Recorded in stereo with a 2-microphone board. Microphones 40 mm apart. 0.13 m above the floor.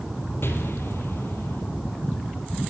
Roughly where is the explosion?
Left.